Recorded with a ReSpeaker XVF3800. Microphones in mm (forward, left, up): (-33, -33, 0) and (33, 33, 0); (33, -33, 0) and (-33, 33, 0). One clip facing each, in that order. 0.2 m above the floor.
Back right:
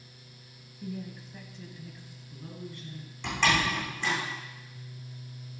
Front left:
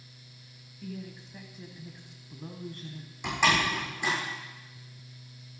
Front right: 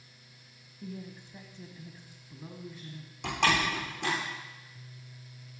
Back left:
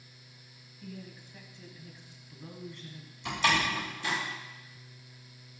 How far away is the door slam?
About 7 m.